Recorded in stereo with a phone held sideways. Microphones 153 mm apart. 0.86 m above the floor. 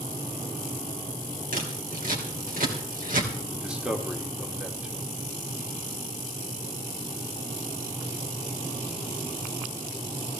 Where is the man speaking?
5° right (ahead or behind), 2 m.